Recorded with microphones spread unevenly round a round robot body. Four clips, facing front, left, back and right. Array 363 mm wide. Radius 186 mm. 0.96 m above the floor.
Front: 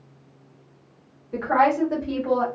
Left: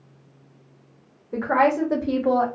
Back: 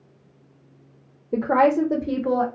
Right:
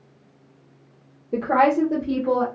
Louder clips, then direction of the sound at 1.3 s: Right 1 dB, back 2 dB; 155° right.